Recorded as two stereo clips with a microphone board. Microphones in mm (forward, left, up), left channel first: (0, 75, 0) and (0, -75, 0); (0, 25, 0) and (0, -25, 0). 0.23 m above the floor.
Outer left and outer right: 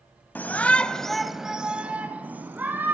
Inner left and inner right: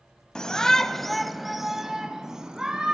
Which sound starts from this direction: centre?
A shout, at 0.3 s.